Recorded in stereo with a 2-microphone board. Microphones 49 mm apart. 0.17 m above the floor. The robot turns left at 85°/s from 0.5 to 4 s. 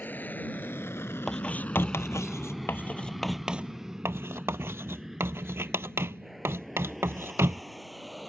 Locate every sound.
0.0 s an aircraft: 40° left (ahead or behind); by 8.3 s centre (ahead or behind)
1.3 s writing: 10° left (ahead or behind); by 7.6 s 60° right (ahead or behind)